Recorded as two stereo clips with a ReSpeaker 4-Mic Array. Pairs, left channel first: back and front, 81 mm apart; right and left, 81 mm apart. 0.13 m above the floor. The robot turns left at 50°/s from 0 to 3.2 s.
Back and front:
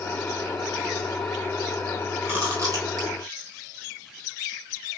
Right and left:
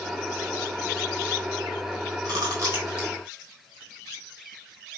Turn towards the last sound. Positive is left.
turn(degrees=15)